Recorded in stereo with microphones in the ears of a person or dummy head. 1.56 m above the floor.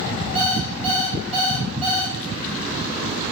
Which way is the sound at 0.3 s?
10° right (ahead or behind).